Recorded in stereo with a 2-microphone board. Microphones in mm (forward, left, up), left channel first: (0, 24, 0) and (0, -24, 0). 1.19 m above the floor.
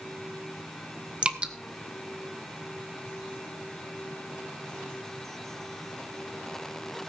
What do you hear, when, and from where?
1.2 s dripping: 25° right (ahead or behind), 0.7 m